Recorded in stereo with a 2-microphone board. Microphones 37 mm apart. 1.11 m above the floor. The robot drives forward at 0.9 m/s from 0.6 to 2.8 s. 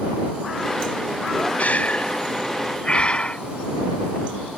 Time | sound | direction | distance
1.6 | breathing | 45° left (ahead or behind) | ?